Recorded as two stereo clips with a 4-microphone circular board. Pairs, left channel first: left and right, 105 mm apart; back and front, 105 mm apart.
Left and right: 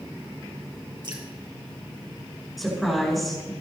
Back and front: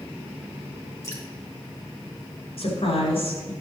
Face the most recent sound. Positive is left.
turn(degrees=180)